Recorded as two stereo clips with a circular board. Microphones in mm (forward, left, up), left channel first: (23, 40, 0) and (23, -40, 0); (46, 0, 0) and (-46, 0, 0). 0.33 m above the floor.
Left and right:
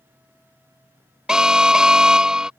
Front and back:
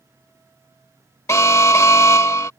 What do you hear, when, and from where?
1.3 s an alarm: 15° right